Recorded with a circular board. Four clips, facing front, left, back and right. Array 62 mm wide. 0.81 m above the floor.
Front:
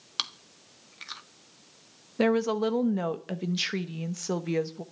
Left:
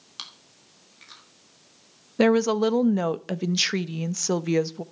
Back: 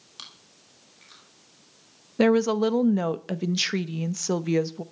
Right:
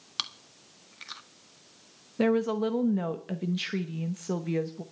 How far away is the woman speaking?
About 0.8 m.